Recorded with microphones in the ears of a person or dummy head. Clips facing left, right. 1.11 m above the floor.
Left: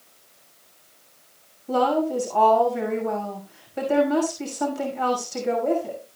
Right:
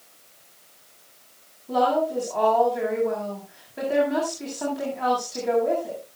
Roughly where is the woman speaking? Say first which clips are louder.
Left 1 dB; left.